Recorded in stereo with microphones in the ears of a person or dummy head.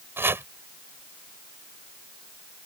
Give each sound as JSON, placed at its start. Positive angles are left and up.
{"t": 0.2, "sound": "chopping", "side_deg": -10}